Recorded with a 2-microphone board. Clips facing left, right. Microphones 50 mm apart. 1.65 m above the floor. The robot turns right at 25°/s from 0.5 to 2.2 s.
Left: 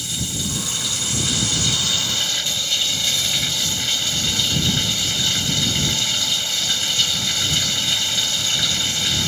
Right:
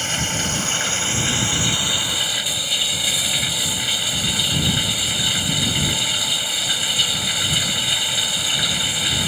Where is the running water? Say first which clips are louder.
Right 5 dB; 55° right; by 9.3 s 10° right.